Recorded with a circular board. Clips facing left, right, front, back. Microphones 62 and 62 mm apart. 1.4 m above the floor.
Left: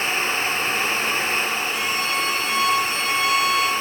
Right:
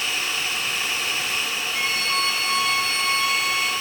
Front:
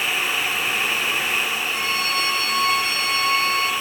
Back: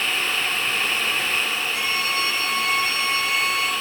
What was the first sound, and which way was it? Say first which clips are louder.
A violin: left 1 dB, front 1 dB; 10° left.